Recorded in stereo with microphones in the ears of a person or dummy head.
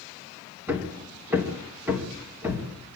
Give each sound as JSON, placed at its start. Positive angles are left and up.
{"t": 0.7, "sound": "hammering", "side_deg": -10, "distance_m": 3.0}